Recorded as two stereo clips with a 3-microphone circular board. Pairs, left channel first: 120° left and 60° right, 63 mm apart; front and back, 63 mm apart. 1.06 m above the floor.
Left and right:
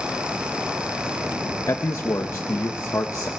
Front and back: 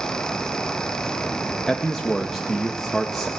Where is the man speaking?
85° left, 1.0 m.